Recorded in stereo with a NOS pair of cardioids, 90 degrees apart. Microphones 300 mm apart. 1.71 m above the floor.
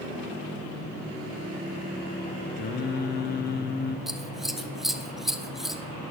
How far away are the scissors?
About 0.9 m.